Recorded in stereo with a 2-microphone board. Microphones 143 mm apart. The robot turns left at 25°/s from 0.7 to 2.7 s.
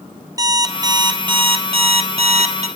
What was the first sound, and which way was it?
An alarm clock, 35° right.